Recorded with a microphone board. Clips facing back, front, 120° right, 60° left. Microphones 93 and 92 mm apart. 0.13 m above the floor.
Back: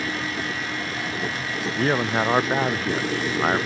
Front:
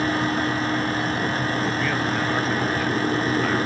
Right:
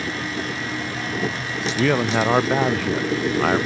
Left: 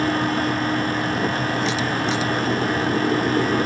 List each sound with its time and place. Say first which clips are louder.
1.8 s a man speaking: back 2 dB, right 3 dB; 130° right